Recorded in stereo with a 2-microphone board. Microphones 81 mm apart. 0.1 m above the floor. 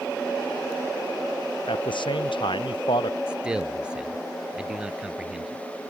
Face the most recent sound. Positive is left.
turn(degrees=-10)  # may be behind; listen again after turning